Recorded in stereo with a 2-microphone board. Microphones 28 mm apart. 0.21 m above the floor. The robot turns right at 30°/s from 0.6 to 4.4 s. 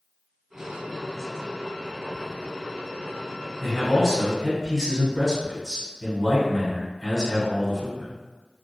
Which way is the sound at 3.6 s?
5° right (ahead or behind).